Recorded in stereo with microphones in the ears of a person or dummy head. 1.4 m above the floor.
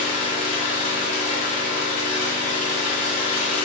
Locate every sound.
0.0 s an engine running: 45° left (ahead or behind), 1.0 m